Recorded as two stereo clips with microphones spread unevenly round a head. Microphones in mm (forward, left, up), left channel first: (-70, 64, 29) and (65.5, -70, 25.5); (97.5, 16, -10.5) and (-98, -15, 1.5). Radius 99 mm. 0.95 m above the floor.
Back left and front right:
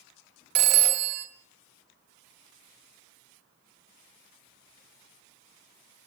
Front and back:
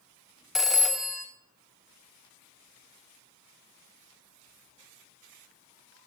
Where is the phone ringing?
85° right, 0.9 m.